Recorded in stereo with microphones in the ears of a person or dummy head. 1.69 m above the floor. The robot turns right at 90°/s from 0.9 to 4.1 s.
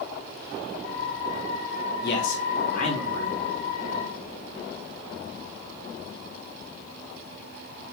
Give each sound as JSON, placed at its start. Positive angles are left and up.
{"t": 2.0, "sound": "a man speaking", "azimuth_deg": 60, "distance_m": 3.5}